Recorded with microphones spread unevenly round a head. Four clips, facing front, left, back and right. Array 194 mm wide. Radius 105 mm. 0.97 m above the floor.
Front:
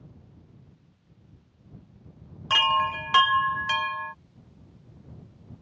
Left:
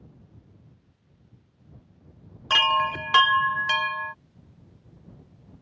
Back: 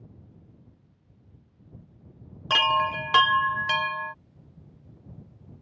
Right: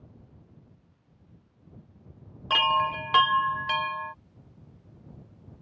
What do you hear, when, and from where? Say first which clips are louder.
2.5 s a chime: left 1 dB, even; 160° right